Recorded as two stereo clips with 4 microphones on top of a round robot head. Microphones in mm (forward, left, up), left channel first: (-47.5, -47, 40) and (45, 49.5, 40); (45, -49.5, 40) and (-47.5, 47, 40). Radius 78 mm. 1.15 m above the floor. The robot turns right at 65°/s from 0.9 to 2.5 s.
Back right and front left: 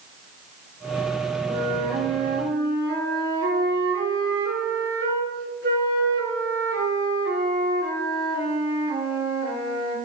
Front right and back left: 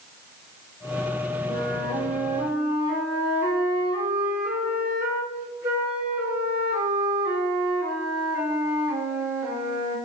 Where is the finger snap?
No finger snap in this recording.